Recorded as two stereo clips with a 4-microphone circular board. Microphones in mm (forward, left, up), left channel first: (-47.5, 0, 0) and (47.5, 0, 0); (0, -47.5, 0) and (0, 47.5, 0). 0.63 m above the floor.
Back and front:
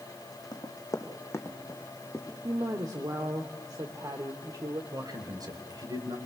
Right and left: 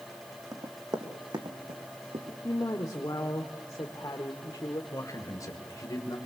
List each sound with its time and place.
0.5 s running footsteps: 135° left, 2.5 m; by 2.3 s 100° left, 2.5 m
2.4 s a woman speaking: 40° right, 1.4 m
4.9 s a man speaking: 40° right, 3 m